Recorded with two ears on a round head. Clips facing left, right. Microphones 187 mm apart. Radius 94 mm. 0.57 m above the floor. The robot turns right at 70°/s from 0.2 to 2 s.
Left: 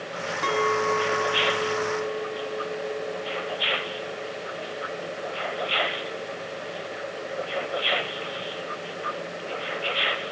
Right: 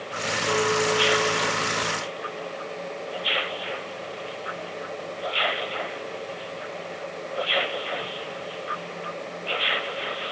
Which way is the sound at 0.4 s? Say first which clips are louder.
Right 1 dB; 80° left.